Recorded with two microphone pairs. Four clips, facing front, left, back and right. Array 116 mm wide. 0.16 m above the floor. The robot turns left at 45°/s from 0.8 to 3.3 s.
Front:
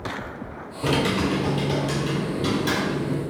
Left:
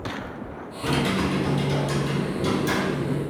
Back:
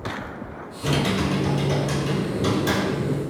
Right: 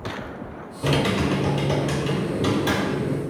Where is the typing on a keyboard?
45° right, 0.8 m; by 3.2 s 150° right, 0.8 m.